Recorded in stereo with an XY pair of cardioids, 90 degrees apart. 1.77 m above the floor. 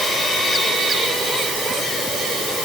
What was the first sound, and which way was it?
Only background noise.